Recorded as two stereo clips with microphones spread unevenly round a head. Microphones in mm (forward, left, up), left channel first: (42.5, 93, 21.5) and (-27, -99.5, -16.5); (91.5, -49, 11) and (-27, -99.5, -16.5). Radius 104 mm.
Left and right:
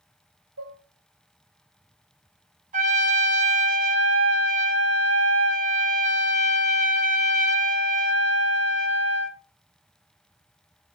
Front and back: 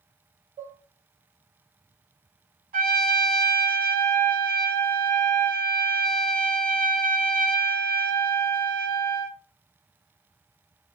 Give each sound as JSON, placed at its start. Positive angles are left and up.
{"t": 0.6, "sound": "dishes clattering", "azimuth_deg": -125, "distance_m": 2.5}
{"t": 2.7, "sound": "a trumpet", "azimuth_deg": -165, "distance_m": 1.3}